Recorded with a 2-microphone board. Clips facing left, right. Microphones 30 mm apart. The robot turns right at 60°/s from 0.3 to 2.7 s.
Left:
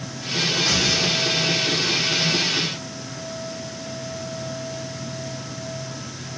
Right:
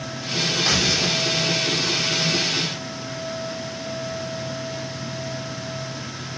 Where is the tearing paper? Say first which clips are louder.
Right 1 dB; 140° right, 5 m; by 1.2 s 105° right, 5 m.